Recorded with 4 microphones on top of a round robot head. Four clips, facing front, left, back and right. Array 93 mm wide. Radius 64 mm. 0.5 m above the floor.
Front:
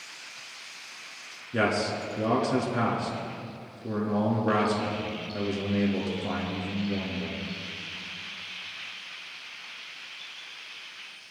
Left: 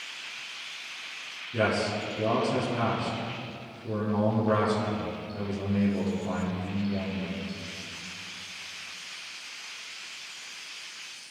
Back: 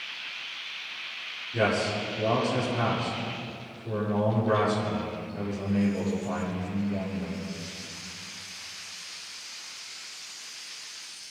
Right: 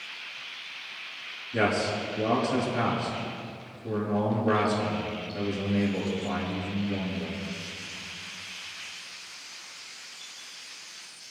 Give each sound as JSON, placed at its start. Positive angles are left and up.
{"t": 1.5, "sound": "a man speaking", "azimuth_deg": 5, "distance_m": 6.0}